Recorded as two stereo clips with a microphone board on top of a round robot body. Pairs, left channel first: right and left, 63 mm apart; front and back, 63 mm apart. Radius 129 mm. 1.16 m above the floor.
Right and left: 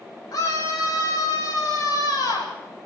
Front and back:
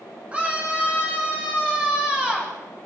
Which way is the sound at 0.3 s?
110° right.